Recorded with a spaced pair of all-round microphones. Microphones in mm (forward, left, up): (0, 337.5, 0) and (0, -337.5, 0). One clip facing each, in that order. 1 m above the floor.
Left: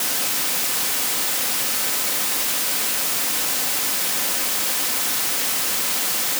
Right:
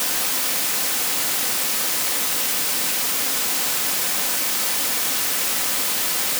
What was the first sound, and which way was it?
Only background noise.